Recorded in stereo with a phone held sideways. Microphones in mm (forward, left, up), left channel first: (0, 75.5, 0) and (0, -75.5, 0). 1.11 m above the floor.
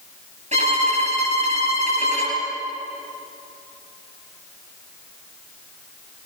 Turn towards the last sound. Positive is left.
turn(degrees=-50)  # may be behind; listen again after turning